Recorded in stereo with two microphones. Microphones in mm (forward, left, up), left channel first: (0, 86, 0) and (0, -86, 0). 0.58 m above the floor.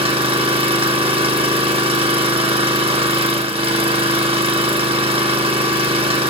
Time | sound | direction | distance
0.0 | an engine running | 35° right (ahead or behind) | 1.0 m